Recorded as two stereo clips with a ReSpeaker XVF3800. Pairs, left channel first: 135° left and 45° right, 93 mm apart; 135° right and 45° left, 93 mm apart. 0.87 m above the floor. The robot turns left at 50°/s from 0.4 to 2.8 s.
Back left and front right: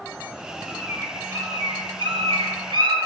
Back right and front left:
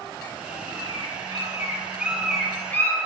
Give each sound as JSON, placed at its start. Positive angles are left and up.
{"t": 0.7, "sound": "a bird", "azimuth_deg": 35, "distance_m": 2.0}